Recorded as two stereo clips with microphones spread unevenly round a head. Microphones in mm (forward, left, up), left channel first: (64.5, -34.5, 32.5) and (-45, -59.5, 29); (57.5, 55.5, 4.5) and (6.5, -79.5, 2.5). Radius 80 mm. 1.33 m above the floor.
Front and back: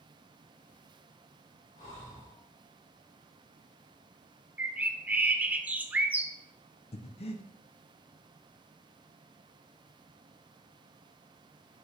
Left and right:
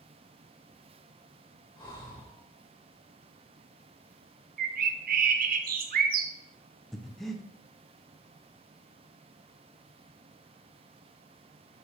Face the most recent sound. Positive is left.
turn(degrees=-20)